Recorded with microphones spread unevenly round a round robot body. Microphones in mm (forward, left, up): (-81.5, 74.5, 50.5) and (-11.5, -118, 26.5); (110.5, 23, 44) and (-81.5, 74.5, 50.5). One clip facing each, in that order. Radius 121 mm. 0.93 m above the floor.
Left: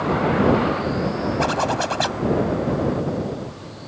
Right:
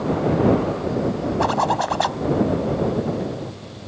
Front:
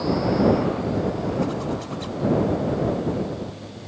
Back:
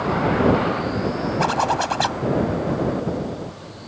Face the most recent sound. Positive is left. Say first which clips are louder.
# even, back 2 dB
turn(degrees=170)